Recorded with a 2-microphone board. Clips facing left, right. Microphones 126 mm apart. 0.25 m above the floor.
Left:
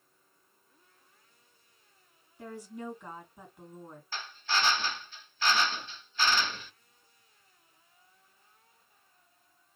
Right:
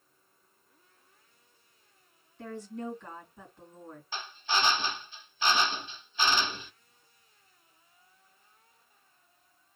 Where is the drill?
20° right (ahead or behind), 0.9 m.